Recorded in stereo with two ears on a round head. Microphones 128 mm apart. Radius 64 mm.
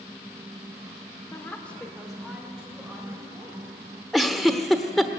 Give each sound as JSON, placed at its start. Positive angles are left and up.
{"t": 1.3, "sound": "a woman speaking", "side_deg": 15, "distance_m": 2.0}
{"t": 4.1, "sound": "a giggle", "side_deg": 0, "distance_m": 1.1}